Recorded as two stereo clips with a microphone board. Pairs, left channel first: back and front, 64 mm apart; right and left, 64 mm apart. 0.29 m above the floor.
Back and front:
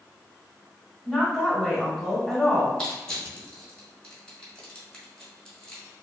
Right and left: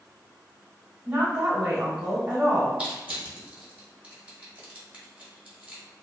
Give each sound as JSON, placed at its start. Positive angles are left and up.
{"t": 1.1, "sound": "a woman speaking", "azimuth_deg": 105, "distance_m": 1.1}
{"t": 2.8, "sound": "crushing", "azimuth_deg": 125, "distance_m": 1.3}